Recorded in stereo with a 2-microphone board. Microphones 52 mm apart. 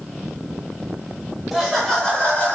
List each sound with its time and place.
1.5 s laughter: centre (ahead or behind), 1.0 m; by 2.6 s 35° left (ahead or behind), 1.2 m